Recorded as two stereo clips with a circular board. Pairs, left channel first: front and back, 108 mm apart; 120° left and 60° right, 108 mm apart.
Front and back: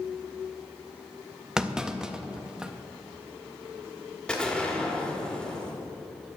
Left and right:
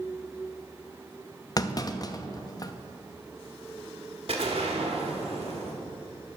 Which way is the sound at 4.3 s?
80° right.